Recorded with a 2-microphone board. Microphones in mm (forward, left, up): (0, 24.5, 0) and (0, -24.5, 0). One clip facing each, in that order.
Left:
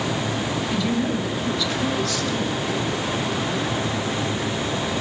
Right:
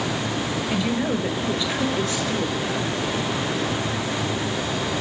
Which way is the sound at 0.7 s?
25° right (ahead or behind).